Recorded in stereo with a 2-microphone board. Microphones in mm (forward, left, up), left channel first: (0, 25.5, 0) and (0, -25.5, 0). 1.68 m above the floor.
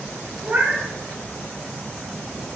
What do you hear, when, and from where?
0.4 s a cat meowing: 45° right (ahead or behind), 1.9 m